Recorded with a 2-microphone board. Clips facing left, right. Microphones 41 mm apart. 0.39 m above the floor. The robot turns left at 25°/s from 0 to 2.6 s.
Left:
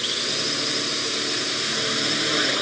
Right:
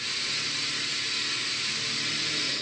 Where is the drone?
65° left (ahead or behind); by 2.6 s 60° left (ahead or behind).